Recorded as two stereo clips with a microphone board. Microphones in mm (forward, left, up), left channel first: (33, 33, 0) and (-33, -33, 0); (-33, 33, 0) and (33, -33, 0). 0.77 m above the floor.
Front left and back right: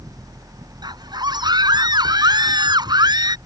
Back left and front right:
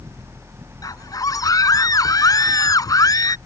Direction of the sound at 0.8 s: 175° right.